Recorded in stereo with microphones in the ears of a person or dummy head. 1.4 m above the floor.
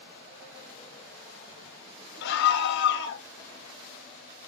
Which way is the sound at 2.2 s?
60° left (ahead or behind).